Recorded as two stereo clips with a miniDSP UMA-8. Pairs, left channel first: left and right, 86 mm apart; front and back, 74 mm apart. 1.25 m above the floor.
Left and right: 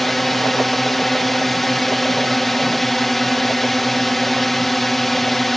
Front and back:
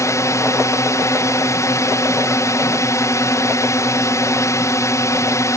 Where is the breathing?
I don't hear breathing.